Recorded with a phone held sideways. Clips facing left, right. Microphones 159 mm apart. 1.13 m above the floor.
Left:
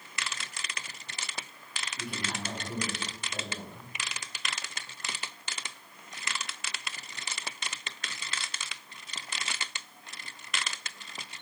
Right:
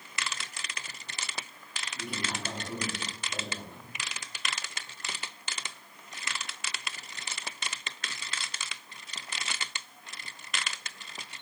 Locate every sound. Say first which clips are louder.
1.9 s a man speaking: right 1 dB; 25° right (ahead or behind), 3 m